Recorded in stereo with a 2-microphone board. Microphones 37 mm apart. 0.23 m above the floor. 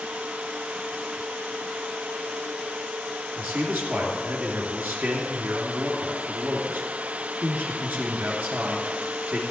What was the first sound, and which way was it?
A man speaking, 70° right (ahead or behind).